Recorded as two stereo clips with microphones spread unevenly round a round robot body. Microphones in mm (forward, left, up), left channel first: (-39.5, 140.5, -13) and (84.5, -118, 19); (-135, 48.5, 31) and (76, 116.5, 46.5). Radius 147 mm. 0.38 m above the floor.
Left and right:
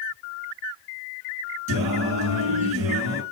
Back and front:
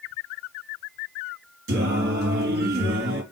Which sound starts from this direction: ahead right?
Singing, at 1.7 s.